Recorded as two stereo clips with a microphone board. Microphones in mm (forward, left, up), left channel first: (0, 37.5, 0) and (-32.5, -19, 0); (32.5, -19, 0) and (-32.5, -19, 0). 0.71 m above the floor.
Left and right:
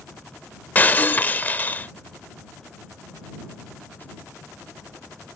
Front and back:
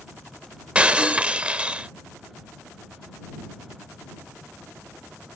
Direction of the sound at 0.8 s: 115° left.